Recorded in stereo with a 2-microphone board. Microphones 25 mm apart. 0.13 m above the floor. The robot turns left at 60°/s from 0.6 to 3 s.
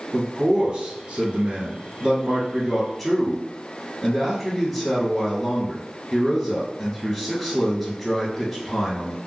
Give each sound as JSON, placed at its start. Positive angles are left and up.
{"t": 0.1, "sound": "a man speaking", "azimuth_deg": -30, "distance_m": 1.6}